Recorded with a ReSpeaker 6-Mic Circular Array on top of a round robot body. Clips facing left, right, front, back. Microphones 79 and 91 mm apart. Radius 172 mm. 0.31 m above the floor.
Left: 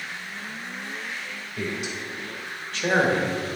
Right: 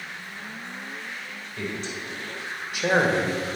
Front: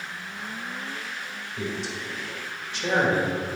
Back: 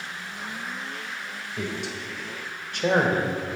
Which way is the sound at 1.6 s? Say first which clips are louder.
Left 2 dB, even; 165° left.